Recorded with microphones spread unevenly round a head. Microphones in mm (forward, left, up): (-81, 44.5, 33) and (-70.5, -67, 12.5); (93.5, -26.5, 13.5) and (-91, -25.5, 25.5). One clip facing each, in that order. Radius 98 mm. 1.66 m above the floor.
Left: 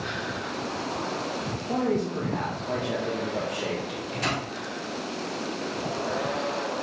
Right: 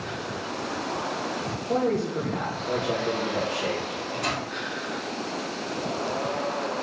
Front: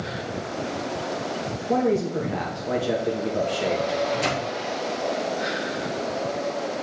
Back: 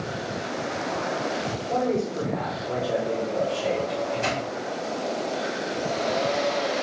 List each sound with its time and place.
1.7 s a man speaking: 5° left, 1.8 m
3.9 s a microwave: 55° left, 1.8 m